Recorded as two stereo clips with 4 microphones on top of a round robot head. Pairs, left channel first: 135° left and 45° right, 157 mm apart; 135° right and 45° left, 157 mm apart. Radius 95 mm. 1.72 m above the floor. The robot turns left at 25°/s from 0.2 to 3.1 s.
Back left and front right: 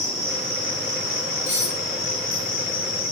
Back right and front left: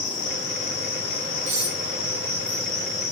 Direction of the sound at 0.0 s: 160° right.